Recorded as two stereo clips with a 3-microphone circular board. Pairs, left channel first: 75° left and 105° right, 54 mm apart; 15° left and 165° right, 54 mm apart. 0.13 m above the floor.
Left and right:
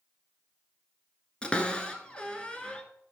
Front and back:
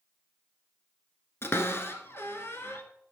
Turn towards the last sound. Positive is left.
turn(degrees=10)